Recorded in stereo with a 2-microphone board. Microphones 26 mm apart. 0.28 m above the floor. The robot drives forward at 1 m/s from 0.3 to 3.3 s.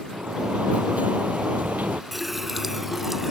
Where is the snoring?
No snoring in this recording.